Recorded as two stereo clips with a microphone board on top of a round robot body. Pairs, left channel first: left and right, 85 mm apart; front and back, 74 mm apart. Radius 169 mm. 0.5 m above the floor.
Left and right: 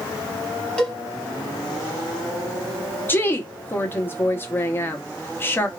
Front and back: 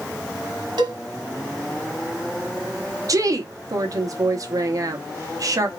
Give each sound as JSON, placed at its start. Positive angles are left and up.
{"t": 0.8, "sound": "a cowbell", "azimuth_deg": 170, "distance_m": 1.7}
{"t": 3.1, "sound": "a woman speaking", "azimuth_deg": 150, "distance_m": 1.1}